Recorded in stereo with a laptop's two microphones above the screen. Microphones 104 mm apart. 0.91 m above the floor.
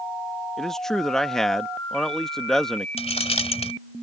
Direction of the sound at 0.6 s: 5° left (ahead or behind).